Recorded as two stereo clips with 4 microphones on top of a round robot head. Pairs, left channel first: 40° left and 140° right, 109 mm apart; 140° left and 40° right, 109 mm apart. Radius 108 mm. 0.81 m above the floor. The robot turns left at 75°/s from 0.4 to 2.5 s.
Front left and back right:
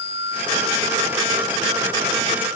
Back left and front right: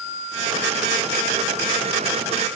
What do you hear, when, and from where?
Only background noise.